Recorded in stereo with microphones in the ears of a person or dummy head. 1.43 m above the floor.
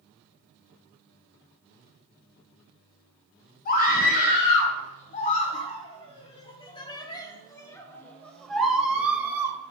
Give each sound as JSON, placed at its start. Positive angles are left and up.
{"t": 3.6, "sound": "a scream", "side_deg": 55, "distance_m": 5.0}